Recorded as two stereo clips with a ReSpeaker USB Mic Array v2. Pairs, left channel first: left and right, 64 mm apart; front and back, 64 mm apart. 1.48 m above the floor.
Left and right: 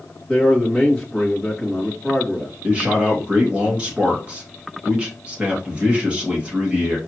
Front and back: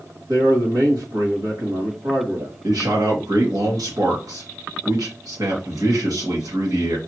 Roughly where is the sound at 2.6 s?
Behind.